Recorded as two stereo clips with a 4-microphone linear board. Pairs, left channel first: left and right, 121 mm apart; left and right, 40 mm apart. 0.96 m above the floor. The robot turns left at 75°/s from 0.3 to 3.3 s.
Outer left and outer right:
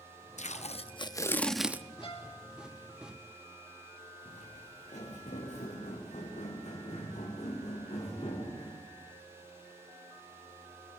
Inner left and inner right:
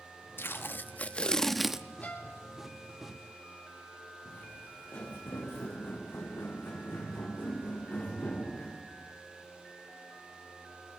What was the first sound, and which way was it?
Tape being pulled, 90° left.